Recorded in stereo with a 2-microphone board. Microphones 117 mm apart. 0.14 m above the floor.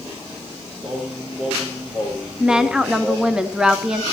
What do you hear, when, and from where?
0.8 s singing: 15° right (ahead or behind), 6.5 m
2.4 s a woman speaking: 5° right (ahead or behind), 1.1 m